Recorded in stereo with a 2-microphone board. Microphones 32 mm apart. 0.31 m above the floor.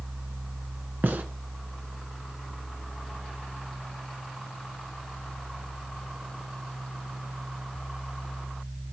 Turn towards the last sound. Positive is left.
turn(degrees=-65)  # may be behind; listen again after turning